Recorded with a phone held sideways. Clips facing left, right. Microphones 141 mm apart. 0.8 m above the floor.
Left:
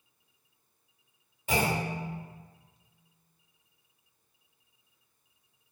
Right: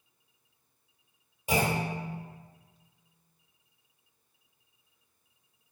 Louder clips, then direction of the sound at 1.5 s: Right 1 dB; 15° right (ahead or behind).